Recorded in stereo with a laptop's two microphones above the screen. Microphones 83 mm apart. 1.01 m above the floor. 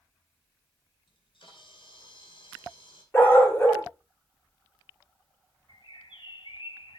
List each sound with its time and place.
1.1 s a camera shutter: 80° left, 2.5 m
3.1 s a dog barking: 25° left (ahead or behind), 1.6 m
5.7 s a bird: 70° left (ahead or behind), 1.2 m